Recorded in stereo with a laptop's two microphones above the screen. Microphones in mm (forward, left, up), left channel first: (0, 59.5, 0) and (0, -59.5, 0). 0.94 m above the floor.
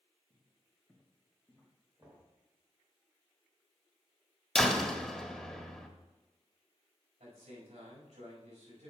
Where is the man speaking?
80° right, 5 m.